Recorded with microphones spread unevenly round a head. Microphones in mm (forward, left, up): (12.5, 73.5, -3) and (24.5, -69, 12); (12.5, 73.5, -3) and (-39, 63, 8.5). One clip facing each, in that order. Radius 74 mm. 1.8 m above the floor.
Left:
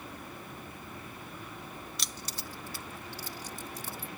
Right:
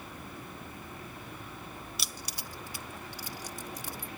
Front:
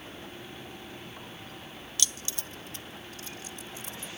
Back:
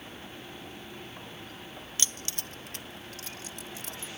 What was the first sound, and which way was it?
Keys jangling, 160° right.